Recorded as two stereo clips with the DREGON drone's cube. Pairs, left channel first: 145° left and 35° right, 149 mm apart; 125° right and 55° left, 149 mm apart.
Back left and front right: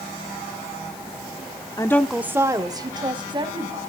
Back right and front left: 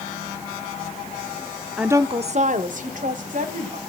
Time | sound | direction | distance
1.8 | a woman speaking | 140° left | 0.7 m